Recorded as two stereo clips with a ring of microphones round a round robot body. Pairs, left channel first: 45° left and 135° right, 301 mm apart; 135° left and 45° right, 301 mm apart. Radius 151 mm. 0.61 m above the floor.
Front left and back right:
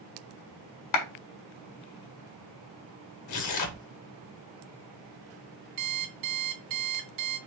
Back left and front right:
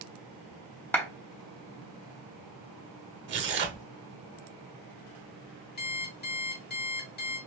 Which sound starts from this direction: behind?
An alarm clock, at 5.8 s.